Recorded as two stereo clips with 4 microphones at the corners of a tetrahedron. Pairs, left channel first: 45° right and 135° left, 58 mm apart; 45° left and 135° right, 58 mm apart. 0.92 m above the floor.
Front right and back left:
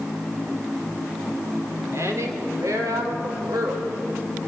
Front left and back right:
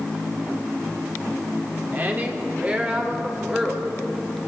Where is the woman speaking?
170° left, 3 m; by 3.9 s 150° left, 4 m.